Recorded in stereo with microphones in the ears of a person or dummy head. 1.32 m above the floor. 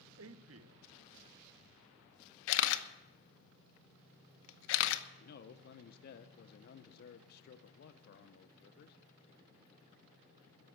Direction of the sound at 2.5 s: 70° left (ahead or behind).